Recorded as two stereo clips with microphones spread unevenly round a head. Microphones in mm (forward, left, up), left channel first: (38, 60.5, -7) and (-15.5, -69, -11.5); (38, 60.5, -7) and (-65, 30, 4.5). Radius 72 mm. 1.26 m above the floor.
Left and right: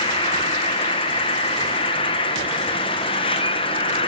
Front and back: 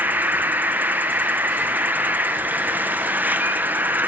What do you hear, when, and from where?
0.0 s an insect: 120° left, 1.3 m